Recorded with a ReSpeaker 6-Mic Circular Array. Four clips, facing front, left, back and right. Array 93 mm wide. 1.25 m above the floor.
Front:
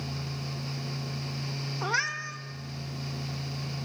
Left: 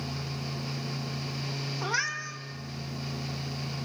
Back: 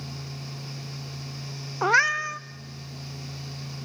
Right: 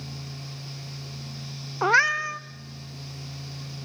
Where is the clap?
I don't hear a clap.